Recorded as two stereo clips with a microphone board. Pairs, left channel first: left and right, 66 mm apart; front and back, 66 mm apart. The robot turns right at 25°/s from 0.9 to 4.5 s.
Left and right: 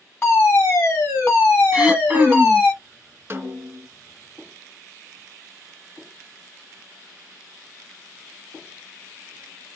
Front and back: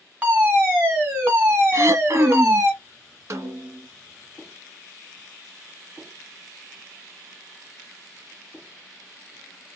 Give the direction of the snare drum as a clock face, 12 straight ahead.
5 o'clock.